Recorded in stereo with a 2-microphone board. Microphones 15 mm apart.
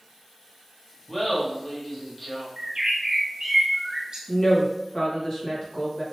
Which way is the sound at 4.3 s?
55° left (ahead or behind).